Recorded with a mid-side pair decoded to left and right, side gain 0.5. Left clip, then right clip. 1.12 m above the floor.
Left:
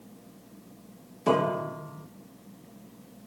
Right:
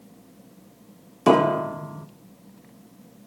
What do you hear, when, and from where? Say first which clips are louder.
1.3 s a piano: right 7 dB; 55° right, 1.8 m